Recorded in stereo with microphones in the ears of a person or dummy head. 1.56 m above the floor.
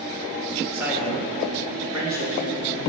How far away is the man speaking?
About 2.0 m.